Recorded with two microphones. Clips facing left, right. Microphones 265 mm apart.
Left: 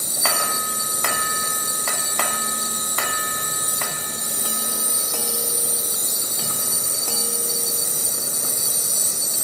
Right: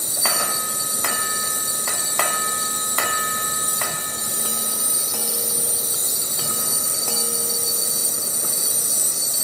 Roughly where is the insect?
Centre.